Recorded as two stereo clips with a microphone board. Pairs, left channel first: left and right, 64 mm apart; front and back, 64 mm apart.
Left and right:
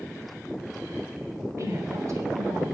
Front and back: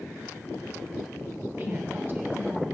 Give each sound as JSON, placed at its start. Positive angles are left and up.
{"t": 1.6, "sound": "a woman speaking", "azimuth_deg": -125, "distance_m": 3.0}